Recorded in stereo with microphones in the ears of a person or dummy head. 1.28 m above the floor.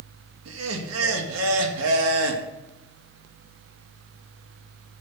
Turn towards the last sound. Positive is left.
turn(degrees=-85)